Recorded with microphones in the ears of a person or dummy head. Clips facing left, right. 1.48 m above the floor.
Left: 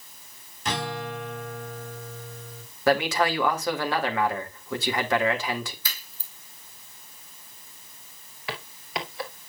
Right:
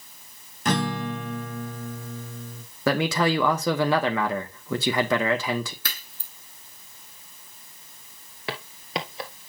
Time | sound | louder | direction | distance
0.7 | a guitar | right 5 dB | 35° right (ahead or behind) | 1.2 m
2.9 | a man speaking | even | 70° right (ahead or behind) | 1.5 m
5.8 | a crack | right 3 dB | 60° right (ahead or behind) | 4.5 m
8.5 | footsteps | right 3 dB | 25° right (ahead or behind) | 1.5 m